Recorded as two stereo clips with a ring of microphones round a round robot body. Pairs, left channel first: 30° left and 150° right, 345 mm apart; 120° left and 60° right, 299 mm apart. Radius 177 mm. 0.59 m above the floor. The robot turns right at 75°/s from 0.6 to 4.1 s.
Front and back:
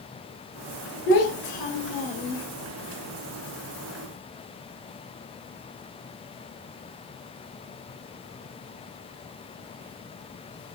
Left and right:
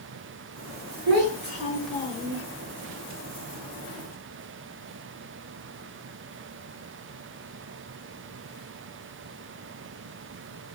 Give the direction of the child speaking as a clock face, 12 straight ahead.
1 o'clock.